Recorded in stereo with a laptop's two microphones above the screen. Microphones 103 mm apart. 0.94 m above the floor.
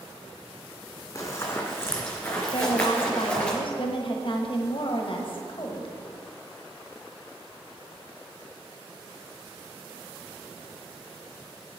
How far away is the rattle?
No rattle in this recording.